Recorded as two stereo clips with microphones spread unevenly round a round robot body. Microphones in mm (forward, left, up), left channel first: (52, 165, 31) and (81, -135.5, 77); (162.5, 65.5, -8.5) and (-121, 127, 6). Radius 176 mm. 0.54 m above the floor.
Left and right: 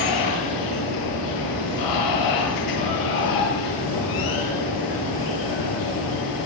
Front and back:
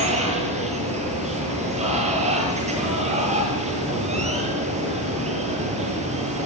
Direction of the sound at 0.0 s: 100° left.